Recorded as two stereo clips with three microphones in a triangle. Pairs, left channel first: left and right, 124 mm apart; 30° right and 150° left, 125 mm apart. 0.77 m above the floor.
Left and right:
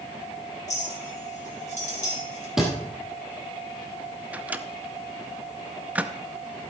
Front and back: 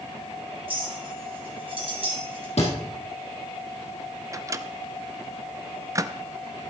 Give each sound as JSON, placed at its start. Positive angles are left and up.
{"t": 0.7, "sound": "a clink", "azimuth_deg": 110, "distance_m": 3.0}
{"t": 2.6, "sound": "a thud", "azimuth_deg": -5, "distance_m": 3.0}
{"t": 4.3, "sound": "a microwave", "azimuth_deg": -160, "distance_m": 0.5}